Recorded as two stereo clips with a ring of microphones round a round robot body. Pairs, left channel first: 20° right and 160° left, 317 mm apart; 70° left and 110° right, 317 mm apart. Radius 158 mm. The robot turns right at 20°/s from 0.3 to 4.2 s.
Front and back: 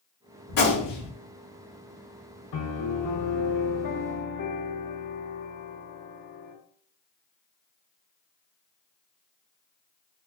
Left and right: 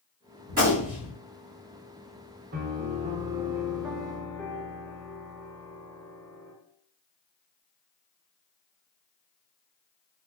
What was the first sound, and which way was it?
A gunshot, 50° right.